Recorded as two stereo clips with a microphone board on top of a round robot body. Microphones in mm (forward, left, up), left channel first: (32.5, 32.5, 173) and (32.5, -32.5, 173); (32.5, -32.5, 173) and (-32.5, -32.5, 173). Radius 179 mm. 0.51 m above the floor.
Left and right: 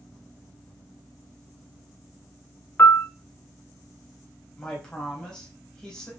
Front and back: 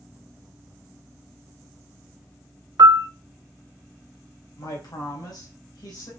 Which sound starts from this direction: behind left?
A piano, at 2.8 s.